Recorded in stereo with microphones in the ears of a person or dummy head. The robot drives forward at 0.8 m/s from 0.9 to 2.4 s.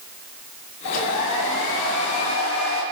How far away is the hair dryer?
About 2 m.